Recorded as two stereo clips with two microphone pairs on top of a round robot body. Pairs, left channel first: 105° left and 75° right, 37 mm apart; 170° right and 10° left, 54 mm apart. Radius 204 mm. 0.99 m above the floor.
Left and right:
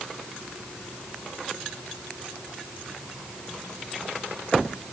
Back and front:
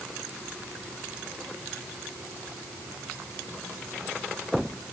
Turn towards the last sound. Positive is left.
No sound to turn to.